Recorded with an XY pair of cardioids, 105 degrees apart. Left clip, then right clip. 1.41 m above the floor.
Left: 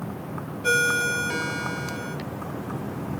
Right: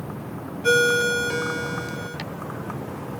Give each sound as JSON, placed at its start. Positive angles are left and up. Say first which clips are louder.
{"t": 0.6, "sound": "a ringtone", "louder": "right 3 dB", "azimuth_deg": 0, "distance_m": 1.1}